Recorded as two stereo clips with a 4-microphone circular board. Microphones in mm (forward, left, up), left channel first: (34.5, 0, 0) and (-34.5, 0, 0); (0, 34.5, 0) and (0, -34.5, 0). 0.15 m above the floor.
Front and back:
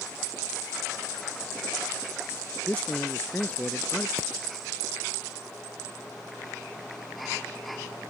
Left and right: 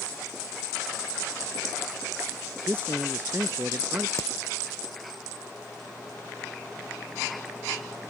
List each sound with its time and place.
2.7 s a man speaking: 55° right
4.2 s hammering: 125° left